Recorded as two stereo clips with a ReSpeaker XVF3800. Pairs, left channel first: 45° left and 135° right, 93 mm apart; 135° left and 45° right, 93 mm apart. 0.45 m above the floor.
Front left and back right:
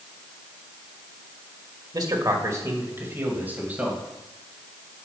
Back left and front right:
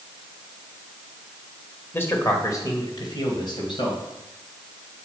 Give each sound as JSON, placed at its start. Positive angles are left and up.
{"t": 1.9, "sound": "a man speaking", "azimuth_deg": -165, "distance_m": 1.7}